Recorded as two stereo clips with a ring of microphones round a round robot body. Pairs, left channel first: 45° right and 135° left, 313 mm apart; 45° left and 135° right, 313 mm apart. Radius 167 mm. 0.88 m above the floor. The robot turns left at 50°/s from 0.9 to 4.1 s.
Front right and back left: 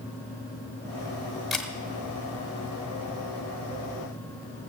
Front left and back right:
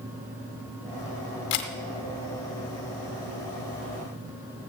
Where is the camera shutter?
45° left, 1.2 m; by 1.7 s 35° left, 1.2 m.